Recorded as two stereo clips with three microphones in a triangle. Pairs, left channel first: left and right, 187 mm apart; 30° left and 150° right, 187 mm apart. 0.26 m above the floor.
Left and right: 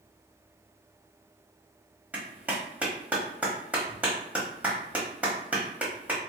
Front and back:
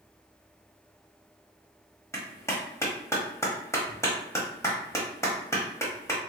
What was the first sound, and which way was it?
A clap, 20° right.